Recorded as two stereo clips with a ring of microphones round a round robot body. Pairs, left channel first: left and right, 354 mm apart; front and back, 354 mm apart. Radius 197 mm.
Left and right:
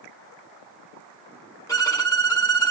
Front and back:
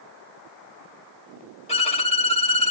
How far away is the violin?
About 1.3 m.